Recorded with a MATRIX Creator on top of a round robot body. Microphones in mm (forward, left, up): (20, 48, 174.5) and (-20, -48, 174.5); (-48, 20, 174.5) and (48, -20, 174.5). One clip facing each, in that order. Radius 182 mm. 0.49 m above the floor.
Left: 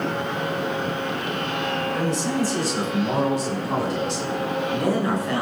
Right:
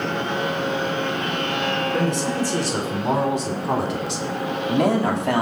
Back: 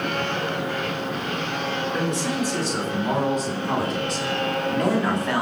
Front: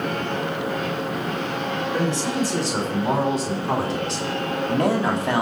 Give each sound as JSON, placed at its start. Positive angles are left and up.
{"t": 1.9, "sound": "a man speaking", "azimuth_deg": -80, "distance_m": 7.0}